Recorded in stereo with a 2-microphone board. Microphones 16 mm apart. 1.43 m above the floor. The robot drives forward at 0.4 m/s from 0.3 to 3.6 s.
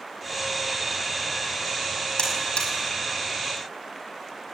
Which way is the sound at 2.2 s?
65° left (ahead or behind).